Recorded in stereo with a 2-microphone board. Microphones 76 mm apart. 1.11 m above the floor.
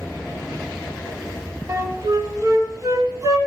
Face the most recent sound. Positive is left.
turn(degrees=-40)  # may be behind; listen again after turning